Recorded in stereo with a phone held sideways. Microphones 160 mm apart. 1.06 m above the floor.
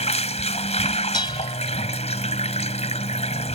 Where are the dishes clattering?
30° left (ahead or behind).